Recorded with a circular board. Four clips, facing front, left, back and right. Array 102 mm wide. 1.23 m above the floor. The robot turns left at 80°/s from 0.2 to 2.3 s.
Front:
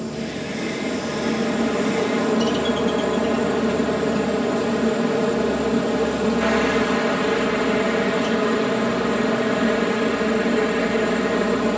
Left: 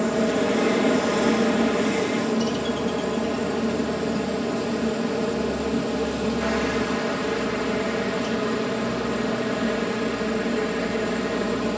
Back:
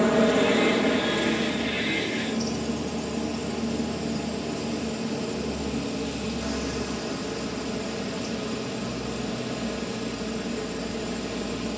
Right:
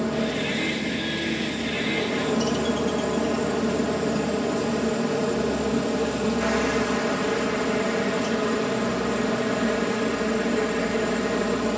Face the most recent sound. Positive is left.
turn(degrees=-5)